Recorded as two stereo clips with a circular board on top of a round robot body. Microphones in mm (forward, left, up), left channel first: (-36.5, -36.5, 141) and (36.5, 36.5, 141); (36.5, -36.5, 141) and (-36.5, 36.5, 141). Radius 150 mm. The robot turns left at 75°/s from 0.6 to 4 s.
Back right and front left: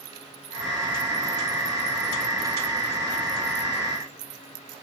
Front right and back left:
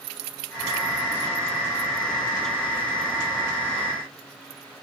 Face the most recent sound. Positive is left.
No sound to turn to.